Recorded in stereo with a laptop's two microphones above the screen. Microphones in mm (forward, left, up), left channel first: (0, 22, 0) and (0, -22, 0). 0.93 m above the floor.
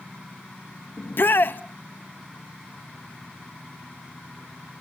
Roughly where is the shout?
Left.